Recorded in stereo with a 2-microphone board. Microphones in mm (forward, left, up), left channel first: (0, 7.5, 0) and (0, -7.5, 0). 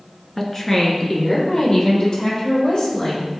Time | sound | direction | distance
0.4 | a woman speaking | 15° left (ahead or behind) | 1.3 m